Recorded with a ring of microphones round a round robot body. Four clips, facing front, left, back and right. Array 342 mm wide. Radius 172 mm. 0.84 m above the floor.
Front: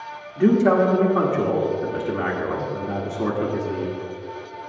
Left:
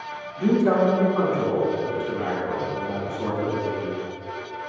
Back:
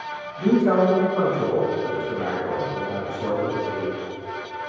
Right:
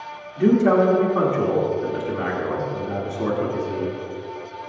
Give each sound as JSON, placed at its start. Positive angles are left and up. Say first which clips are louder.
{"t": 0.4, "sound": "a man speaking", "louder": "right 3 dB, front 2 dB", "azimuth_deg": -20, "distance_m": 1.8}